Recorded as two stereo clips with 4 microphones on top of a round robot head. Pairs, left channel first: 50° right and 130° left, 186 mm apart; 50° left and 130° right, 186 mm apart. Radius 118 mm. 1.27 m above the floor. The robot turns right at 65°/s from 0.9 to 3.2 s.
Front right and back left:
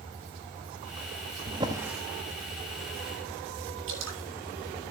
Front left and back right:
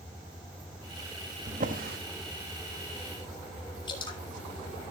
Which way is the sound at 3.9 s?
115° left.